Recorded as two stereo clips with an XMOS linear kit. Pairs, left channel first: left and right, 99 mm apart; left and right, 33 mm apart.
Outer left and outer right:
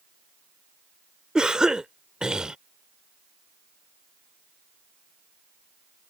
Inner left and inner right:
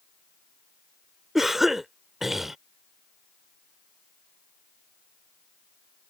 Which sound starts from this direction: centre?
A cough, at 1.4 s.